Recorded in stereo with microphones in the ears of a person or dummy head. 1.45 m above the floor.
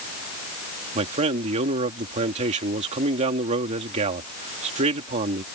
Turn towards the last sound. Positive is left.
turn(degrees=-35)  # may be behind; listen again after turning